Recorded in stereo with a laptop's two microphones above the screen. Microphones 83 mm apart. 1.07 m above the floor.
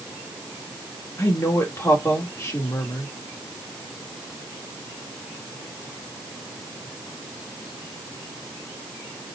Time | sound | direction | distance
1.2 | a woman speaking | 35° left (ahead or behind) | 1.7 m